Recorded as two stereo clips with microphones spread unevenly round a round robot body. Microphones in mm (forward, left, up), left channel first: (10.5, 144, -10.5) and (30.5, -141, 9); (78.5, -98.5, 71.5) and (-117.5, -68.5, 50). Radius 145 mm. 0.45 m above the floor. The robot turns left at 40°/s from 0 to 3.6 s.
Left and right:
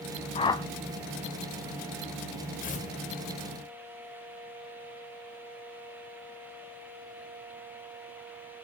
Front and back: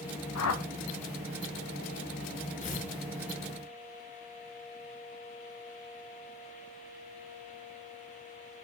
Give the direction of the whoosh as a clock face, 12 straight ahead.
11 o'clock.